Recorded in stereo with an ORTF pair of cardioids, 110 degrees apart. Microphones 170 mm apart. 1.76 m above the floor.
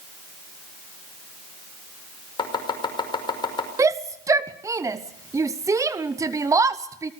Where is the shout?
20° right, 0.8 m.